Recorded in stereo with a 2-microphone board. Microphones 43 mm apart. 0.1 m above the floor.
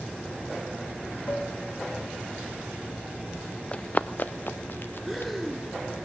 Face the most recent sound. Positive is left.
turn(degrees=0)  # may be behind; listen again after turning